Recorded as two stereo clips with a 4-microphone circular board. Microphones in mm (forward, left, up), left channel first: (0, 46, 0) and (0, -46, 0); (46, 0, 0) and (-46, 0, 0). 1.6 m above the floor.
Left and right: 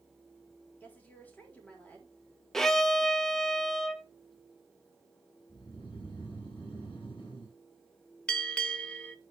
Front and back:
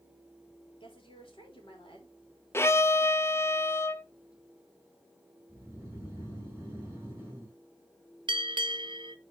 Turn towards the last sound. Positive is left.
turn(degrees=170)